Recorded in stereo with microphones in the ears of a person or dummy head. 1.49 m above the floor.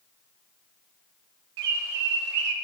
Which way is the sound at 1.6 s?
65° right (ahead or behind).